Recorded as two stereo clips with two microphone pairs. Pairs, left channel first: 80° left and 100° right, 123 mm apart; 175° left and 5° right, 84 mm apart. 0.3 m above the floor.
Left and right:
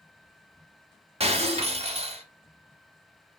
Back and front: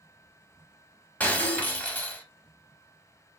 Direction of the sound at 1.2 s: 115° right.